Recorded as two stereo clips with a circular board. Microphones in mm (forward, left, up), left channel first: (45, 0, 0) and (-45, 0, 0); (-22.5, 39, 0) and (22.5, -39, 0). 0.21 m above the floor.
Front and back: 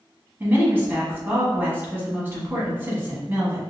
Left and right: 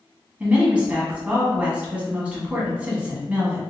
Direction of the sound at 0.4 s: 130° right.